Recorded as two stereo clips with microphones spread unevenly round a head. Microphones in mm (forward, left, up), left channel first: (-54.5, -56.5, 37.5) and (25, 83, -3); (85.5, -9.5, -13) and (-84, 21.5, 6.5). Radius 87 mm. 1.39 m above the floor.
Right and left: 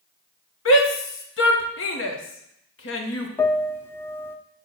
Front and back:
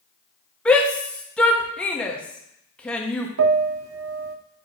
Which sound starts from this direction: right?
A shout, at 0.7 s.